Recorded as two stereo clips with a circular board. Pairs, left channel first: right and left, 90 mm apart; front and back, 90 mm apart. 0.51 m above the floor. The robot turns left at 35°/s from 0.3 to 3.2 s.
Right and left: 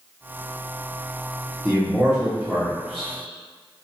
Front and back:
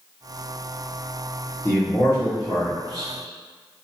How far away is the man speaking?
About 1.3 m.